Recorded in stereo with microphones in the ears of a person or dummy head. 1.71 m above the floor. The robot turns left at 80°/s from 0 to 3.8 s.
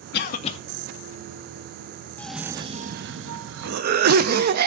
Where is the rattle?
No rattle in this recording.